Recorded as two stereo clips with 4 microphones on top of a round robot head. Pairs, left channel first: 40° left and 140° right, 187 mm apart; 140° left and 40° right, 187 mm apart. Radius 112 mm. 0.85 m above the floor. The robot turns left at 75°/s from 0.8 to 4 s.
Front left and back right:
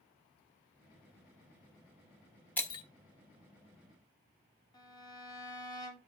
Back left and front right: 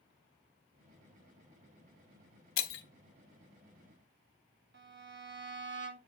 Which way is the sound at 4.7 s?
25° right.